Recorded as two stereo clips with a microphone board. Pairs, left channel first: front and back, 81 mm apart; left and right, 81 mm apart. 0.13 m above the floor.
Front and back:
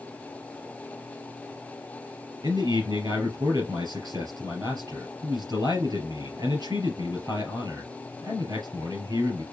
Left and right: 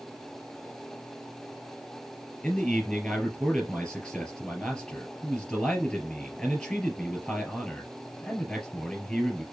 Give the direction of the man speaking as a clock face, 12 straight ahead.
7 o'clock.